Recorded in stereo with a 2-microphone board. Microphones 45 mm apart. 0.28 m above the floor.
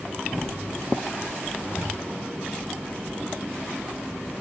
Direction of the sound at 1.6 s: 75° left (ahead or behind).